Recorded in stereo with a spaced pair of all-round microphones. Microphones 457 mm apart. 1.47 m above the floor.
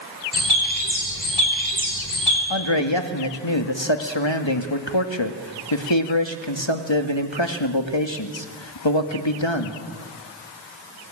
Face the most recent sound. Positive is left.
turn(degrees=70)  # may be behind; listen again after turning